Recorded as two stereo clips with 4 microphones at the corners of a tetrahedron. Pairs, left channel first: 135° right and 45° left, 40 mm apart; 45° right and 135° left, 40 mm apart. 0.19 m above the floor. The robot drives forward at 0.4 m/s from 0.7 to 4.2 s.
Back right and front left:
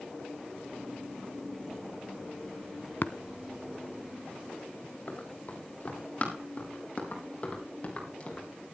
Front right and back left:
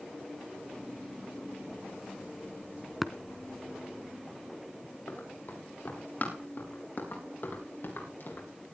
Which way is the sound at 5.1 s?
85° right.